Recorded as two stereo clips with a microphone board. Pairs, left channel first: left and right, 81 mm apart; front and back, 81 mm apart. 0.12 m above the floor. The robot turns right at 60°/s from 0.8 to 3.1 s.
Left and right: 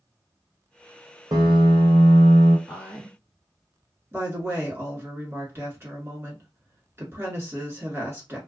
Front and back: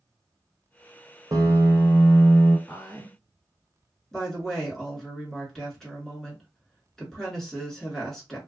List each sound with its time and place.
1.3 s a piano: 130° right, 0.8 m; by 2.6 s 55° right, 0.8 m
2.7 s a woman speaking: 45° right, 2 m; by 3.2 s 15° right, 2 m
4.1 s a woman speaking: 80° right, 1.4 m